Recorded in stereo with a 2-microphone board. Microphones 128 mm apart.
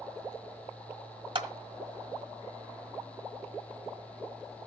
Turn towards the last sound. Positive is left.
turn(degrees=-45)  # may be behind; listen again after turning